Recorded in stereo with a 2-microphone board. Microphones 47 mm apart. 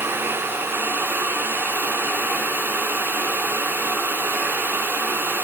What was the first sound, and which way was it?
Only background noise.